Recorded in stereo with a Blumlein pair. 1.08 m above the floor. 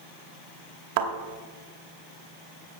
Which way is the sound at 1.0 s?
50° right.